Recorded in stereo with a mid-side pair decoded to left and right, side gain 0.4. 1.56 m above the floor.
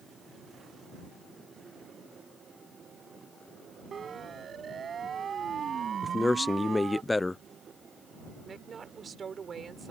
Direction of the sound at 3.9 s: 55° right.